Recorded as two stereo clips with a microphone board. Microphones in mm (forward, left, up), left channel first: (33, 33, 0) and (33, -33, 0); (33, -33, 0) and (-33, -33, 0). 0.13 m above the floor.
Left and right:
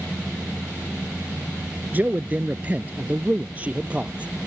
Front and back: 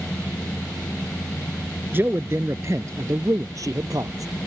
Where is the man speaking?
140° right; by 4.5 s 160° right.